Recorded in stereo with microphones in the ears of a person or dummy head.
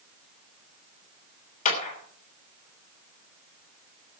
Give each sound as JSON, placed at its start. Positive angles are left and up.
{"t": 1.6, "sound": "a clap", "side_deg": 45, "distance_m": 3.0}